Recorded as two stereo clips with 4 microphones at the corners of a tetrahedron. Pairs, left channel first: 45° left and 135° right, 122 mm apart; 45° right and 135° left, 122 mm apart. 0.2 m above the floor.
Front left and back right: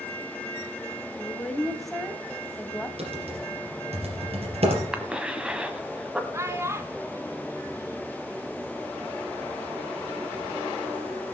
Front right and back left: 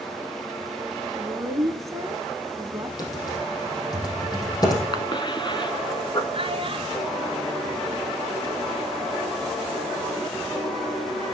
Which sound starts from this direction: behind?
A child speaking, at 6.3 s.